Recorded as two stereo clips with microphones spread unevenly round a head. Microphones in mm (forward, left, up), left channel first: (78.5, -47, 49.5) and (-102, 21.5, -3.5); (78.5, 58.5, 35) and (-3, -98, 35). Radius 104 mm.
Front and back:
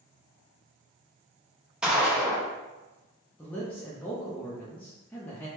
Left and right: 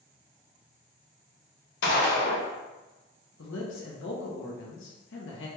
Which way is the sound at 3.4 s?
60° left.